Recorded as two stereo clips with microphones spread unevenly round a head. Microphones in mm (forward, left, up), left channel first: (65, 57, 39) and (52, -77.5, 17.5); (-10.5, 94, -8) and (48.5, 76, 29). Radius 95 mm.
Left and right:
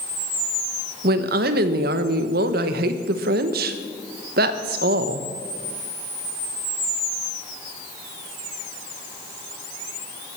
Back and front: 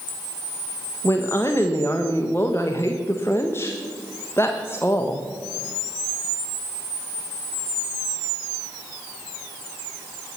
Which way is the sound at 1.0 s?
120° right.